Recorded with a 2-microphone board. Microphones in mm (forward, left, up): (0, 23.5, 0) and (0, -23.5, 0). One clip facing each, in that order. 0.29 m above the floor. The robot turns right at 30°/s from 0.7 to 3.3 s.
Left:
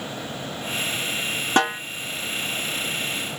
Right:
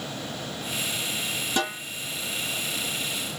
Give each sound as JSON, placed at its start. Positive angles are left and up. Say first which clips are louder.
{"t": 1.6, "sound": "a snare drum", "louder": "left 8 dB", "side_deg": 60, "distance_m": 1.1}